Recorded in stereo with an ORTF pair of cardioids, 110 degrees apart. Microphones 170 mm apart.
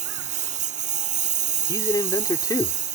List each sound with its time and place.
0.0 s a lawn mower: 45° right
1.7 s a man speaking: 20° left